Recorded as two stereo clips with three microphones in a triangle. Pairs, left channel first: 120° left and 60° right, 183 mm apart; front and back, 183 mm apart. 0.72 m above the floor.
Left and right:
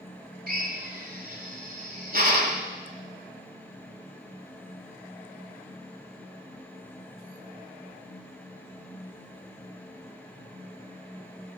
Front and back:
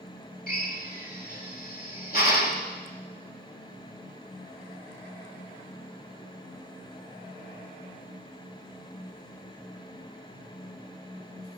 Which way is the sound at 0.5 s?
30° right.